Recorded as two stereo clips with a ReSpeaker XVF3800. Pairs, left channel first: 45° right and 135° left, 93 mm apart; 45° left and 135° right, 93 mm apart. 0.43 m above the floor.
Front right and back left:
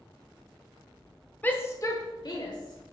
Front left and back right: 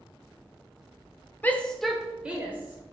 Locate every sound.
1.4 s a shout: 5° left, 0.8 m; by 2.9 s 70° right, 1.6 m